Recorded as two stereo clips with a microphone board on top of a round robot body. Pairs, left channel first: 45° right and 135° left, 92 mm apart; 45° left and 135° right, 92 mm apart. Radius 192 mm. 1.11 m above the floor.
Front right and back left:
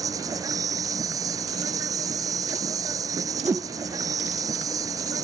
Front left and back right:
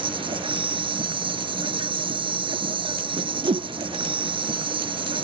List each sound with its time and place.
0.0 s an insect: 170° right
3.4 s a whoosh: 155° right